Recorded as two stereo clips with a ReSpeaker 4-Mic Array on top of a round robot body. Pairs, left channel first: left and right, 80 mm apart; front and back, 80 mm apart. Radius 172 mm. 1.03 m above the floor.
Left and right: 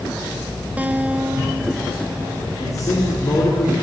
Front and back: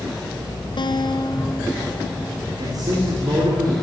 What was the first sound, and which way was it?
A guitar, 15° right.